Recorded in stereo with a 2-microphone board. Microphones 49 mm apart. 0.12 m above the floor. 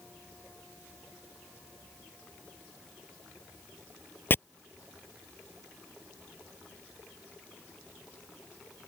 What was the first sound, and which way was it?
Chopping, 40° left (ahead or behind).